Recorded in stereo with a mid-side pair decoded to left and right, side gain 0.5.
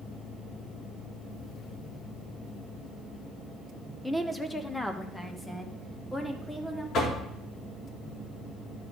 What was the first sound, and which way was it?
A woman speaking, 5° left.